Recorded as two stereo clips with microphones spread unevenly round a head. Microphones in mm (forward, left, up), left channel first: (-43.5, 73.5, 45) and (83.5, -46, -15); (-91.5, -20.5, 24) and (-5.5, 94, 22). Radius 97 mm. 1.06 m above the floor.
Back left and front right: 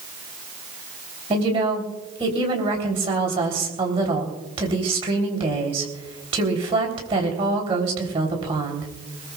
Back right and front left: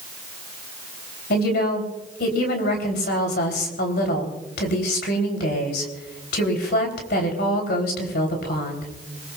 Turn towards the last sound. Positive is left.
turn(degrees=-105)